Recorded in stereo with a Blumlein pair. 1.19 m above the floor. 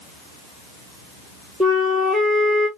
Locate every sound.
1.6 s a flute: straight ahead, 1.9 m